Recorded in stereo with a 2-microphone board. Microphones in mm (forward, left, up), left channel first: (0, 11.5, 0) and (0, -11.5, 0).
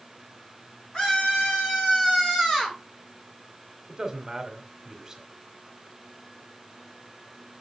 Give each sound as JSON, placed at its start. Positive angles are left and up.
{"t": 0.9, "sound": "a scream", "side_deg": 40, "distance_m": 4.5}
{"t": 3.9, "sound": "a man speaking", "side_deg": -20, "distance_m": 1.6}